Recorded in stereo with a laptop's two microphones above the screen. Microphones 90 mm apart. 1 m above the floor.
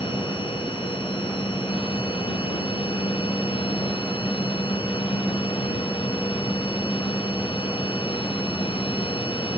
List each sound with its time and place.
0.0 s a machine running: 80° left